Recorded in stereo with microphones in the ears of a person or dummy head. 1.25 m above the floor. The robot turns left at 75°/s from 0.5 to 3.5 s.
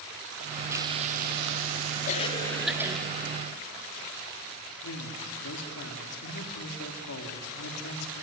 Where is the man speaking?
80° left, 3 m.